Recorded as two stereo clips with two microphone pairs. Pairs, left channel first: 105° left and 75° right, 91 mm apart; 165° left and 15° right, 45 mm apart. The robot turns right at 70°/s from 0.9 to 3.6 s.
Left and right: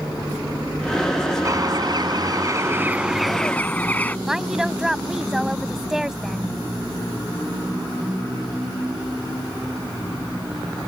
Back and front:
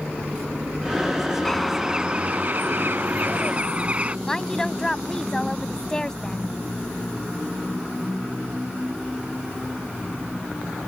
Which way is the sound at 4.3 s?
150° right.